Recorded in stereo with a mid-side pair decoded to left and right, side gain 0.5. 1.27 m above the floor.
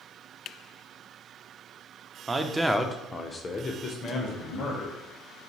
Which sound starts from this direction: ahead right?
A man speaking, at 2.3 s.